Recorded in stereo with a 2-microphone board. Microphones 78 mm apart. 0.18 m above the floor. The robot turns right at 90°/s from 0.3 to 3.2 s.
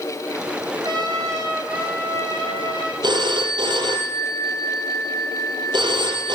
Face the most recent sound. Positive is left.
turn(degrees=-80)